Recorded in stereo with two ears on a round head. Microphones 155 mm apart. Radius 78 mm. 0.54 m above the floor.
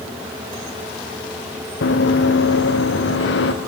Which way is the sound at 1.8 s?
65° left (ahead or behind).